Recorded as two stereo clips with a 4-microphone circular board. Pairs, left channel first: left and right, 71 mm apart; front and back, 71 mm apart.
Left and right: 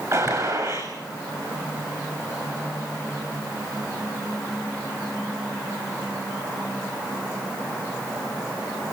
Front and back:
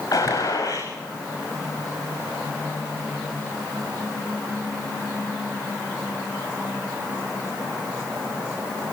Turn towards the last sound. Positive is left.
turn(degrees=-45)